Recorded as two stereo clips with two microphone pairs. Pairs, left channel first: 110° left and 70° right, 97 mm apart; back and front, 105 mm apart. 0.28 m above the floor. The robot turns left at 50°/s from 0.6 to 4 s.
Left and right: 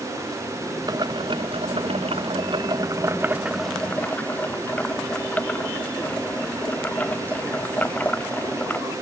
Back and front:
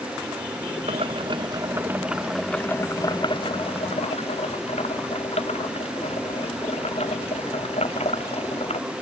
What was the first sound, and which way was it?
Boiling, 20° right.